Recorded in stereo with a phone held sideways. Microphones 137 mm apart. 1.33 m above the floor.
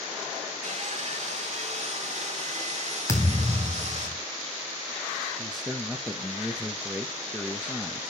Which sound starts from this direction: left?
A thud, at 3.1 s.